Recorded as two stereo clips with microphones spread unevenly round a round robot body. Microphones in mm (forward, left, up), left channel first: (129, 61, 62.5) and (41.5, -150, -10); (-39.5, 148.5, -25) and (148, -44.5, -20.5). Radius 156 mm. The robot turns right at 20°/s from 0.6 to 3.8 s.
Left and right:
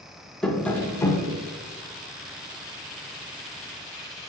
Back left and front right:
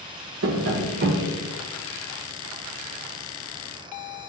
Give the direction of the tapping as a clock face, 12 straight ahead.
12 o'clock.